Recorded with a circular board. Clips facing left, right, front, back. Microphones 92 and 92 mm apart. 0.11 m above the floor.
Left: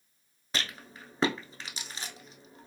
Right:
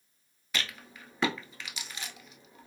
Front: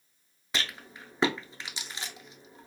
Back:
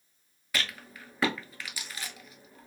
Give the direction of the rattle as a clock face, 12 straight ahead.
10 o'clock.